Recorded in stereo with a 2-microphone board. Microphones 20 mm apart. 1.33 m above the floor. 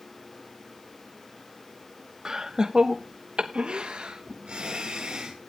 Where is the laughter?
35° right (ahead or behind), 1.3 m; by 5.4 s 75° right (ahead or behind), 1.8 m.